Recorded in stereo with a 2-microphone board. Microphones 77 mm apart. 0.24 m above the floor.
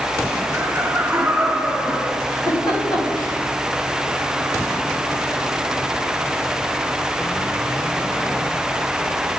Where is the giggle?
80° left, 4 m.